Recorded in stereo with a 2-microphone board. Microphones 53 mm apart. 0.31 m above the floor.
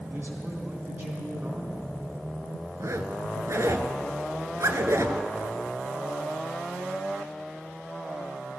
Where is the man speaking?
50° right (ahead or behind), 3 m.